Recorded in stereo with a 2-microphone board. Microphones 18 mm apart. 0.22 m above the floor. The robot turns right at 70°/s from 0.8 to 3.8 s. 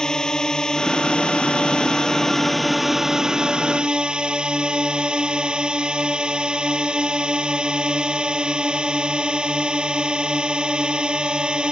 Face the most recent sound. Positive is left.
turn(degrees=-100)